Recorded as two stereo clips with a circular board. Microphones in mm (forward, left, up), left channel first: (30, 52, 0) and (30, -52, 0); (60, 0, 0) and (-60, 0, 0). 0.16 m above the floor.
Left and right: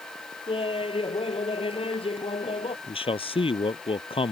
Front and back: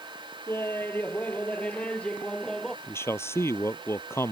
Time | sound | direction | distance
0.5 | laughter | 70° left | ?
2.9 | a man speaking | 70° left | ?